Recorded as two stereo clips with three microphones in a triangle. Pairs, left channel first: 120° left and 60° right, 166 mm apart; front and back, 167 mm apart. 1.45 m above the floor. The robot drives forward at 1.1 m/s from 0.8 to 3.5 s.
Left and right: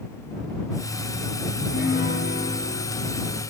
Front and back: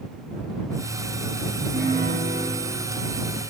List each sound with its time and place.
1.6 s a piano: 145° left, 8.5 m; by 3.4 s 150° left, 10.5 m